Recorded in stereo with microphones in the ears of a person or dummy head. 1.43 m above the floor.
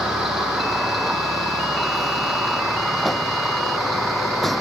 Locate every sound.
0.0 s a vehicle: centre (ahead or behind)